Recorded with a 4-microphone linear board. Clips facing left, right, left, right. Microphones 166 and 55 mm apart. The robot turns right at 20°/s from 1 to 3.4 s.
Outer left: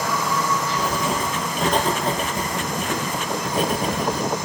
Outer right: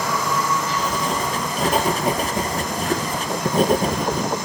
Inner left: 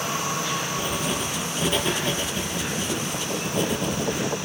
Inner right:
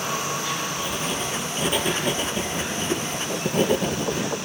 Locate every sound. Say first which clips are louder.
0.8 s writing: even, inner left 1 dB; 170° left, 0.6 m; by 4.3 s 140° right, 0.6 m